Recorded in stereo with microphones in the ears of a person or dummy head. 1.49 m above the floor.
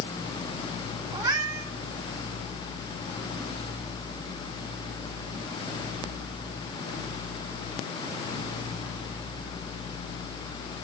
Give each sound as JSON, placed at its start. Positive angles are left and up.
{"t": 1.1, "sound": "a cat meowing", "side_deg": -25, "distance_m": 4.0}